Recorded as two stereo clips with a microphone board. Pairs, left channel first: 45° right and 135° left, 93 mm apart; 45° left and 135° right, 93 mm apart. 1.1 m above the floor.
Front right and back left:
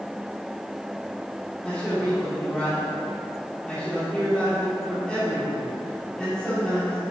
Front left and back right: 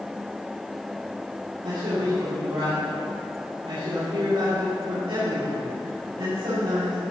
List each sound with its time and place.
1.6 s a man speaking: 130° right, 2.5 m